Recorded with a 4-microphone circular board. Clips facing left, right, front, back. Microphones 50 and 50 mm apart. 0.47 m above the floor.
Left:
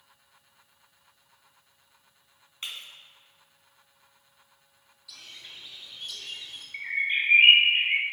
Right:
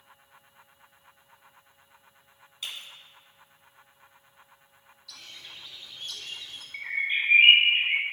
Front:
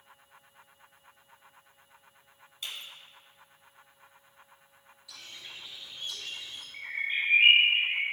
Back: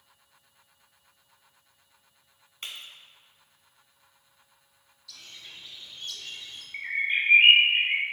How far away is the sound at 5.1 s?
About 1.1 m.